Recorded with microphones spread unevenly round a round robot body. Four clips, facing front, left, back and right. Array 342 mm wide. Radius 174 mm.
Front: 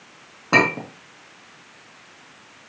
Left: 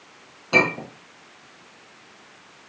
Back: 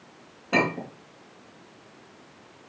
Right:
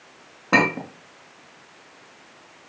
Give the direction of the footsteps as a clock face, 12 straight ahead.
No footsteps in this recording.